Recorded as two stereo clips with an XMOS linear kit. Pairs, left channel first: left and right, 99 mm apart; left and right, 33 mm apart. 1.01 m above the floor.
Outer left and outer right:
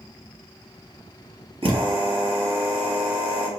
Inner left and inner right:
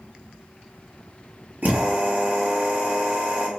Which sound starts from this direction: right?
A drill, at 1.6 s.